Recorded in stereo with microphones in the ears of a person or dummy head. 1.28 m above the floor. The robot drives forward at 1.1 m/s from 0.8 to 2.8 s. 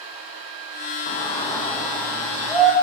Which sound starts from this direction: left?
A shout, at 1.1 s.